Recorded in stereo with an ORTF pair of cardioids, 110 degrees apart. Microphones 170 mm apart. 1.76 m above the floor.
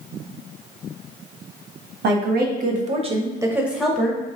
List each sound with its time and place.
2.0 s a woman speaking: 70° right, 1.0 m; by 4.2 s 10° left, 0.9 m